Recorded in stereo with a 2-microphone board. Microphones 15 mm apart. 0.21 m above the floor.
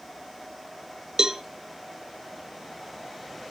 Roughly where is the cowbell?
Right.